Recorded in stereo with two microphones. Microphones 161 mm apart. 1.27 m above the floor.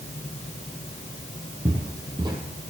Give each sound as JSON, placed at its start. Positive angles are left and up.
{"t": 1.6, "sound": "footsteps", "side_deg": -25, "distance_m": 2.0}